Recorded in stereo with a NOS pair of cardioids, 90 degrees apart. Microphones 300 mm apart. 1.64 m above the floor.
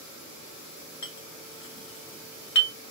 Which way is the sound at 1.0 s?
70° left.